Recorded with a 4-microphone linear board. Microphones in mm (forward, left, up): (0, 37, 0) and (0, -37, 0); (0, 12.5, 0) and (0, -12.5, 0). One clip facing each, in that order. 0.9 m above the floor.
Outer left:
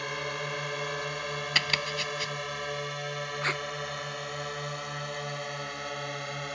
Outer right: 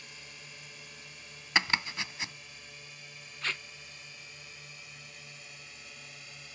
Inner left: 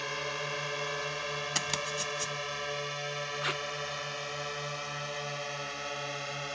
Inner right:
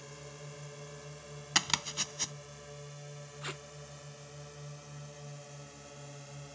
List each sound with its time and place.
0.0 s a drone: 75° left (ahead or behind); by 6.6 s 70° left (ahead or behind)
1.6 s chopping: 20° right (ahead or behind)
3.4 s tape being pulled: 35° left (ahead or behind)